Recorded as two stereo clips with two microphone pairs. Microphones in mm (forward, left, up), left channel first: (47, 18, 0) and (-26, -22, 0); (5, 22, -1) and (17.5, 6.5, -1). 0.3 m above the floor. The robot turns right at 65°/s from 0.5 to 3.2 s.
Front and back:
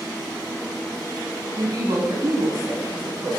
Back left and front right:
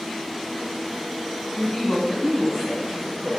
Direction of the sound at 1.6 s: 170° left.